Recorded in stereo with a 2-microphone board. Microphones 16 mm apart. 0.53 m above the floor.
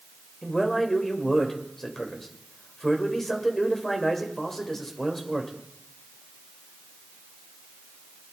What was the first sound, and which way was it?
A man speaking, 25° left (ahead or behind).